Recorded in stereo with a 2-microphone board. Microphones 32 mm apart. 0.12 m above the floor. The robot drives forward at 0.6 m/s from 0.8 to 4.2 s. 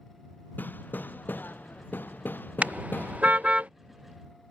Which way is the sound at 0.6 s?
70° left (ahead or behind).